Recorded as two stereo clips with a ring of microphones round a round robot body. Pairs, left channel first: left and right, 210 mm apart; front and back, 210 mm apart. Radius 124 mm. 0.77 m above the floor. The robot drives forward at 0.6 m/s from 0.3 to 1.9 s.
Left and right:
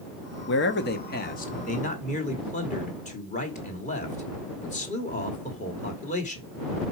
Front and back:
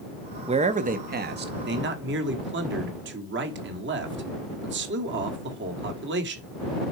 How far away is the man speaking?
About 1.0 m.